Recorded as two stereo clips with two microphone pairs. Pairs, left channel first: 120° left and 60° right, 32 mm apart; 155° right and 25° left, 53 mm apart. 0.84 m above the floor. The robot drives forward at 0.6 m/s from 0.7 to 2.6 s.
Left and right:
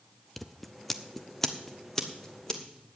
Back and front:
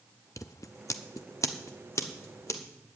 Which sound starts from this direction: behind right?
Scissors, at 0.4 s.